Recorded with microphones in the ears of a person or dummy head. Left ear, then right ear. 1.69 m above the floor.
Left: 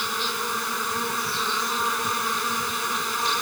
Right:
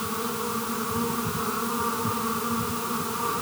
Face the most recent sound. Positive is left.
turn(degrees=80)